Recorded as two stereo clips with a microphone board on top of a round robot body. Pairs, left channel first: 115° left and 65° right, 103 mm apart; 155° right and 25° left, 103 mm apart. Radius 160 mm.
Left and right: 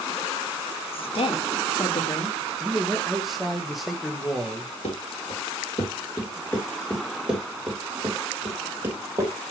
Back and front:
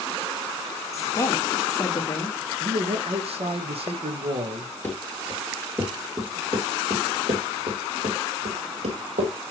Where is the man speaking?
20° left, 1.9 m.